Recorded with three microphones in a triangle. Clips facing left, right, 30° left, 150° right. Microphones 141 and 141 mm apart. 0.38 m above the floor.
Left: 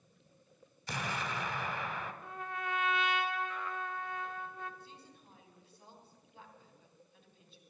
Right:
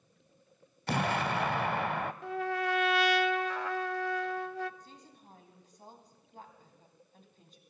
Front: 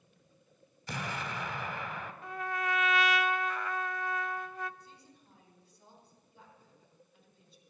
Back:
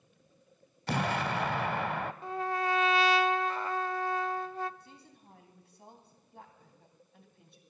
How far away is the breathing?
I don't hear breathing.